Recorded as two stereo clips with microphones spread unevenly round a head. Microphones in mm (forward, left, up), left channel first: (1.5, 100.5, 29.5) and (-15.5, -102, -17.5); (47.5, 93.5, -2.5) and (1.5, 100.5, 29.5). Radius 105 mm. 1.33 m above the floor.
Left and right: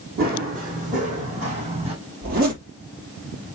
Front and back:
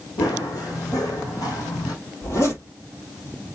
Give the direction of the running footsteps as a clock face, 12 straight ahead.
1 o'clock.